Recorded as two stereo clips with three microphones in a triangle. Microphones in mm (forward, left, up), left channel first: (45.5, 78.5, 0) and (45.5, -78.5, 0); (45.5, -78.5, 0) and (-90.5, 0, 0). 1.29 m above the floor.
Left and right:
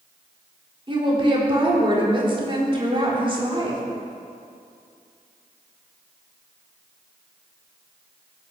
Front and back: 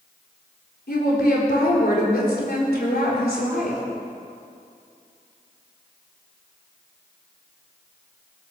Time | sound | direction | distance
0.9 | a woman speaking | 35° right | 4 m